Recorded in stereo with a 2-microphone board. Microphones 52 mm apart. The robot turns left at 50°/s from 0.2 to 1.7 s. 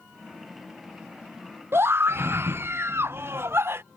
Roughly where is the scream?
Right.